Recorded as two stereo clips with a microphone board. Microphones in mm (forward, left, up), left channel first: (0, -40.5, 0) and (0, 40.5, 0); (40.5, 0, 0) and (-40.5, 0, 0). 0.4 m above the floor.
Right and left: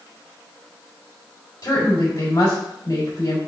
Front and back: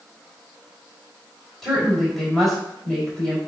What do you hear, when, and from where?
1.6 s a woman speaking: 85° right, 2 m